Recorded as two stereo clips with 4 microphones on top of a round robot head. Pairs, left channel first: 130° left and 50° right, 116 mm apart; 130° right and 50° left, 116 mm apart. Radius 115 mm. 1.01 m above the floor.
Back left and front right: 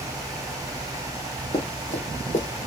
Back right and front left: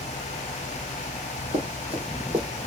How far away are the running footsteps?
About 2.5 m.